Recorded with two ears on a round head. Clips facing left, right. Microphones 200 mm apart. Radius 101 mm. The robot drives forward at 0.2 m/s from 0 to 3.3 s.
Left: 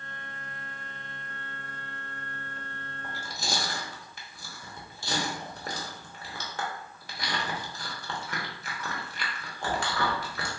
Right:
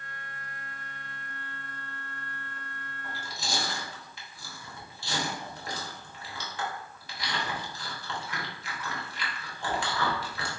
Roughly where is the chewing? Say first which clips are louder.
Left 2 dB; left.